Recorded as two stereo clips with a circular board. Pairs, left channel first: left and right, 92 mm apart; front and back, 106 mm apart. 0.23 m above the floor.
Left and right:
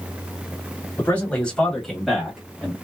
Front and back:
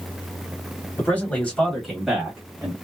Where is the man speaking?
40° left, 1.6 m; by 2.7 s 150° right, 1.5 m.